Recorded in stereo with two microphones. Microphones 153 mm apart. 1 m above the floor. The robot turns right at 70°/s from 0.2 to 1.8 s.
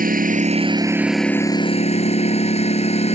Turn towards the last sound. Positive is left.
turn(degrees=45)